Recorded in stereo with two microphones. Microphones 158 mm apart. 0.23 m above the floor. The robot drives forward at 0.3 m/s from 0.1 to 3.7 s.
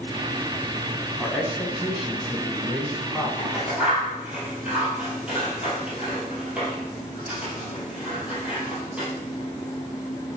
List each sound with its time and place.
1.2 s a man speaking: 5° right (ahead or behind), 1.4 m
3.4 s scissors: 10° right (ahead or behind), 3 m